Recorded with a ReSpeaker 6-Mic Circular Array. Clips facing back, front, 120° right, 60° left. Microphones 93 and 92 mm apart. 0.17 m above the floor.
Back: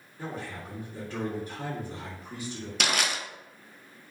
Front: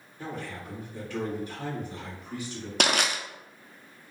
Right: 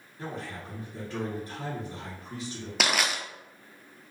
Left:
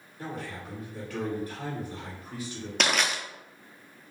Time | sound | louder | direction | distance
0.2 | a man speaking | even, even | 165° right | 1.7 m
2.8 | crushing | front 3 dB, left 1 dB | 35° right | 0.5 m